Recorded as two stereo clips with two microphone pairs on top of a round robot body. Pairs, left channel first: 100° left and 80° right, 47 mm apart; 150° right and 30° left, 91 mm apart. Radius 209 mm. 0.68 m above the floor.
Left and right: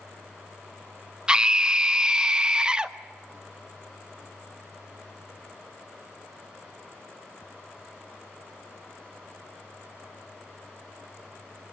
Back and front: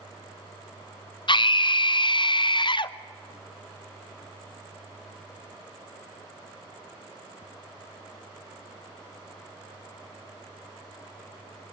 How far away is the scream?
About 1.4 m.